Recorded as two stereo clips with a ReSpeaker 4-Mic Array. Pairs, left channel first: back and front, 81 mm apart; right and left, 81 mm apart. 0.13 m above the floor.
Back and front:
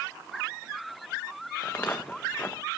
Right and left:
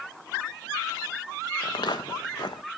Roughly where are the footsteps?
Behind right.